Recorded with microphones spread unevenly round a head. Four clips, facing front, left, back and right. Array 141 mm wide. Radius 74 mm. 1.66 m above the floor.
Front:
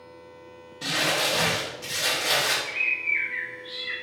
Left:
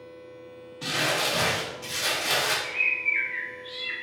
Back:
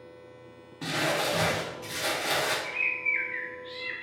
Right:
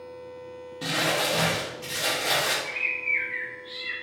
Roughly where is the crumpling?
Behind right.